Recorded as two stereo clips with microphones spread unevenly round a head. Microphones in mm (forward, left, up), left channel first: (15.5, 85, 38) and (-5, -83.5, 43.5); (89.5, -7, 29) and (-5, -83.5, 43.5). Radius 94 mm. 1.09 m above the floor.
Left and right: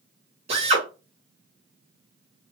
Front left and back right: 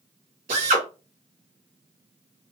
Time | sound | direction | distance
0.5 | a drill | 150° right | 2.5 m